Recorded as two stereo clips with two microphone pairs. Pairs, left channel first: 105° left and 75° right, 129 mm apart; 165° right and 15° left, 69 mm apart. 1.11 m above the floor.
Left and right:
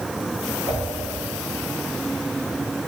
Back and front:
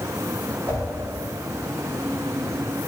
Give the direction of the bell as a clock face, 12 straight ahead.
No bell in this recording.